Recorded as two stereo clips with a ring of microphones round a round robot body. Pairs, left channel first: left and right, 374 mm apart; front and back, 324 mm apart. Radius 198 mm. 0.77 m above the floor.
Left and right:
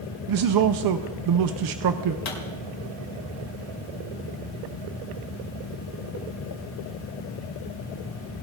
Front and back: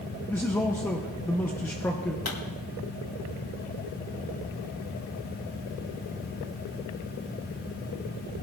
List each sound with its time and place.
0.3 s a man speaking: 85° right, 0.6 m
2.2 s a pop: 40° left, 3 m